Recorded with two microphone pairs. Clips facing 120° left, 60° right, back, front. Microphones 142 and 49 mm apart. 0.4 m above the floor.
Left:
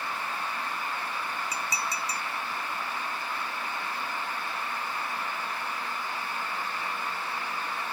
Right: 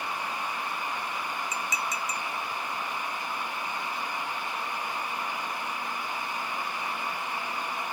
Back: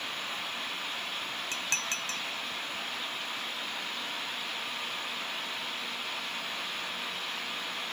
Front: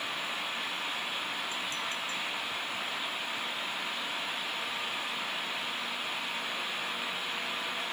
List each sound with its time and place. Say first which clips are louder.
1.5 s dishes clattering: right 1 dB, back 1 dB; 175° left